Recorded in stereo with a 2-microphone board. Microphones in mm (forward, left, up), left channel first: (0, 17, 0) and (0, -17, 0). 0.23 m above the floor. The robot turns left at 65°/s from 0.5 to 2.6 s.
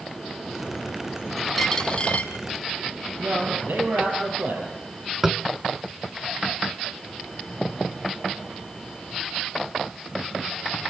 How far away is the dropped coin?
About 2.5 m.